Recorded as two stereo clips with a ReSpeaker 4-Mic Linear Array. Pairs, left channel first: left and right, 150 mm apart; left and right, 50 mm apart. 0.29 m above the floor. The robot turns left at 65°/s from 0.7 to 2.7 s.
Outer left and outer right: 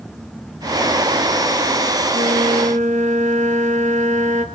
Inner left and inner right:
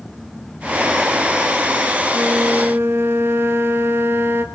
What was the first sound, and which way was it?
A flute, 90° right.